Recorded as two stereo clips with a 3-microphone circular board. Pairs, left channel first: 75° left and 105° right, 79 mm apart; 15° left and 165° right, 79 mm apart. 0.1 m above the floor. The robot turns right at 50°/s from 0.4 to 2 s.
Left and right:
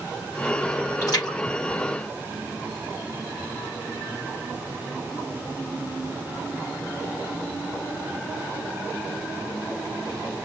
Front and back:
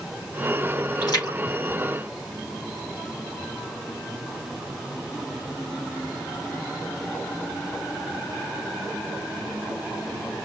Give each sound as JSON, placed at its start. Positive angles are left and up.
{"t": 1.0, "sound": "a splash", "azimuth_deg": 40, "distance_m": 4.0}